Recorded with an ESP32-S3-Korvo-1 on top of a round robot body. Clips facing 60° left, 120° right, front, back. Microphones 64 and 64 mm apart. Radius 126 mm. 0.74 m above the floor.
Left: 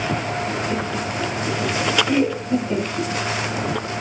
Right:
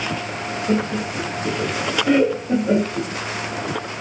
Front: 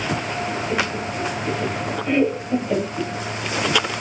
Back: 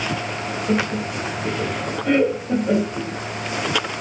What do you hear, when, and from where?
0.7 s laughter: 145° right, 9 m